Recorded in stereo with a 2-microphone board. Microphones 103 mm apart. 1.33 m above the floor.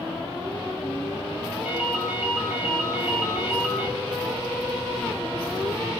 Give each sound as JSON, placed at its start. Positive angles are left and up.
{"t": 1.6, "sound": "a ringtone", "side_deg": -15, "distance_m": 0.8}